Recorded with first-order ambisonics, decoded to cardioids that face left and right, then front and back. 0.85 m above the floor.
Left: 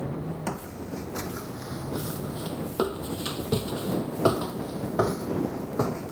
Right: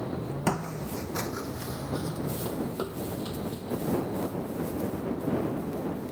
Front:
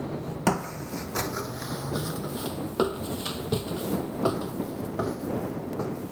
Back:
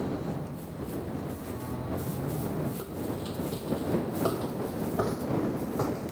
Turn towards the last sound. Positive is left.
turn(degrees=105)